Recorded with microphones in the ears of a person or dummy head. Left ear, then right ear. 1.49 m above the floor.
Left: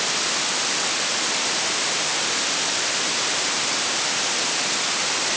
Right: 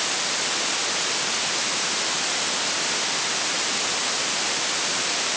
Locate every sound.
Only background noise.